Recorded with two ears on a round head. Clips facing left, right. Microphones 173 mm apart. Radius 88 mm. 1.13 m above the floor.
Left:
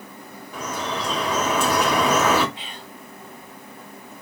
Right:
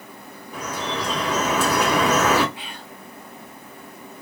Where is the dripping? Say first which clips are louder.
Even; 5° right (ahead or behind), 1.7 m.